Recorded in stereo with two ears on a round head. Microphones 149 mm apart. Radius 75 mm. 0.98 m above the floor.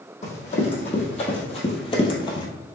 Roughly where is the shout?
I don't hear a shout.